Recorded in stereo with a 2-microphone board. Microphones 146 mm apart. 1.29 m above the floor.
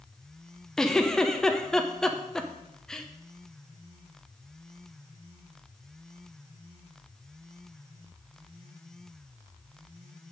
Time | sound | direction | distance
0.8 | a giggle | 5° left (ahead or behind) | 0.8 m